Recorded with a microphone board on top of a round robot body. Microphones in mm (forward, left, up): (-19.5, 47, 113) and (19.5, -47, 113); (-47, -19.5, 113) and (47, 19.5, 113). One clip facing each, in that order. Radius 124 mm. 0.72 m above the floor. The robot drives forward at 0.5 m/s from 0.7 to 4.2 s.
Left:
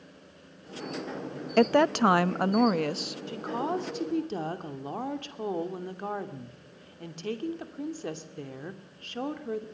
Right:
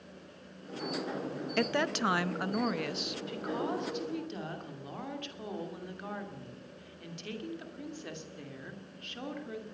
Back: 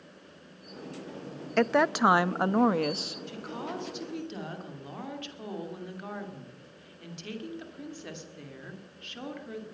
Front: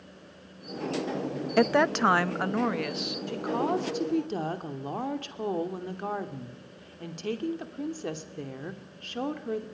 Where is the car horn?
No car horn in this recording.